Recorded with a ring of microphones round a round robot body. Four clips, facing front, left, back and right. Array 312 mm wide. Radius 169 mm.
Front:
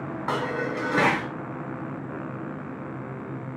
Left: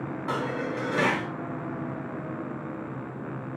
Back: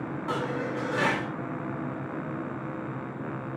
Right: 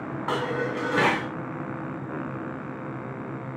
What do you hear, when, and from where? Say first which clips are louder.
0.3 s dishes clattering: right 3 dB, front 3 dB; 35° right, 2 m